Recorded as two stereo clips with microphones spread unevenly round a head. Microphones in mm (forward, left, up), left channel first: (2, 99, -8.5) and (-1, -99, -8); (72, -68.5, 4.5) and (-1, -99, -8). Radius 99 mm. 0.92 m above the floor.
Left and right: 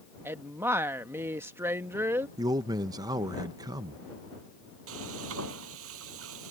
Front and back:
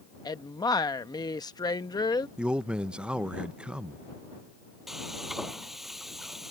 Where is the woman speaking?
15° right.